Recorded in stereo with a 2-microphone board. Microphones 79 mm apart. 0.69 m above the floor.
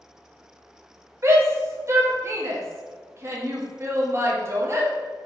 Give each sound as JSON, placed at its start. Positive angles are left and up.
{"t": 1.2, "sound": "a shout", "side_deg": -35, "distance_m": 1.0}